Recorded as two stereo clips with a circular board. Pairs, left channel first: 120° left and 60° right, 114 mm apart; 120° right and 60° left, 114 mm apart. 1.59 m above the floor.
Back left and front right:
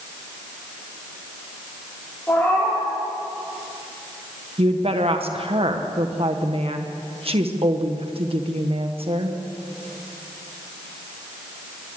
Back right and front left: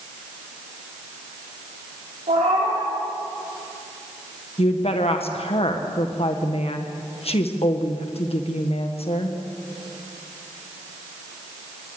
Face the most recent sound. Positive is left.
turn(degrees=-90)